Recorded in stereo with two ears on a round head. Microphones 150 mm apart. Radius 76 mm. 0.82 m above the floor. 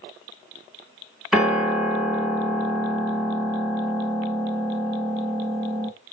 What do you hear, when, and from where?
1.3 s a piano: centre (ahead or behind), 1.5 m